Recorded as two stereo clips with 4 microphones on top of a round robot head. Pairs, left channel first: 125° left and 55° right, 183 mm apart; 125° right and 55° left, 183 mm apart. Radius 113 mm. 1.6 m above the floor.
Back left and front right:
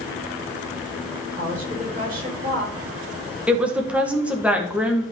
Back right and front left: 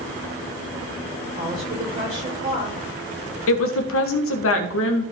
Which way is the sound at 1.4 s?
5° right.